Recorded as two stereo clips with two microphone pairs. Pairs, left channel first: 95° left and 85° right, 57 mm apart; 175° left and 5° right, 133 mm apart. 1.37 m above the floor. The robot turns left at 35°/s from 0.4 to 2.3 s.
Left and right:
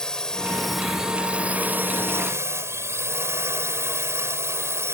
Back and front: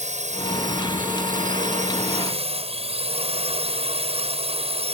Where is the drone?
20° left; by 4.9 s 45° right.